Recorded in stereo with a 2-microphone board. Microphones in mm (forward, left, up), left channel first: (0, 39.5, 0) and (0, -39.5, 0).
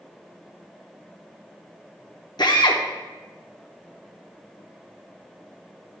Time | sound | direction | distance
2.4 | a drill | 65° left (ahead or behind) | 0.9 m